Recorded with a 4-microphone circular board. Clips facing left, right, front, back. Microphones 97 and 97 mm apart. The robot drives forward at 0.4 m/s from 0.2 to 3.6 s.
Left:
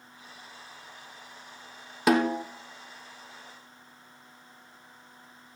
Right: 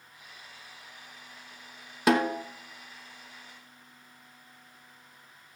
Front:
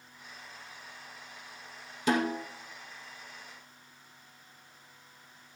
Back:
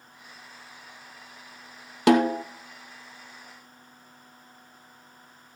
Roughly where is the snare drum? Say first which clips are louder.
Left 1 dB, back 9 dB; behind.